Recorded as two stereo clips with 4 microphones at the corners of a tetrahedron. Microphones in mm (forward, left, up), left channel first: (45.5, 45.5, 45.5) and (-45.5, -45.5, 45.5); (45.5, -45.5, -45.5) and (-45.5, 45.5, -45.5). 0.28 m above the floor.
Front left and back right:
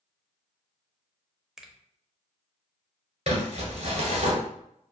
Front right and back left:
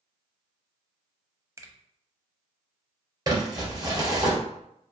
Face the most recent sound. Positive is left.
turn(degrees=-165)